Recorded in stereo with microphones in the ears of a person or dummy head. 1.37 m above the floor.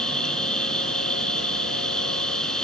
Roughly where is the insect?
Centre.